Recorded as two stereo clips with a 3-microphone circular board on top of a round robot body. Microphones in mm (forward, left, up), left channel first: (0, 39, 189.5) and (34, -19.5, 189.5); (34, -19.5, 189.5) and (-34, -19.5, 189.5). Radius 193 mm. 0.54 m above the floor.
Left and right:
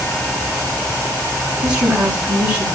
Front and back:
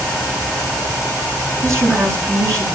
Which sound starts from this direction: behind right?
A woman speaking, at 1.6 s.